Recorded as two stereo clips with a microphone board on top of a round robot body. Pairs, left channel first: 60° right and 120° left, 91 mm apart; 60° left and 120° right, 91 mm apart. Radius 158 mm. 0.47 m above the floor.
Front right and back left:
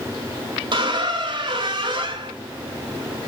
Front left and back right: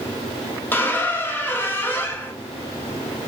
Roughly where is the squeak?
Behind left.